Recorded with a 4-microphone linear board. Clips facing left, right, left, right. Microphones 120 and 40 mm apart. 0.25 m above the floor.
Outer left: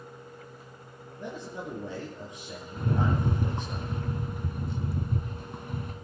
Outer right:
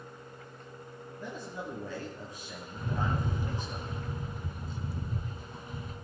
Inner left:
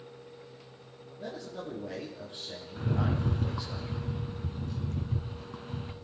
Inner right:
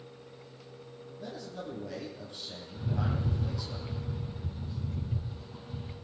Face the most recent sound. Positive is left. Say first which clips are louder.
# outer left 5 dB, inner left 3 dB
turn(degrees=60)  # may be behind; listen again after turning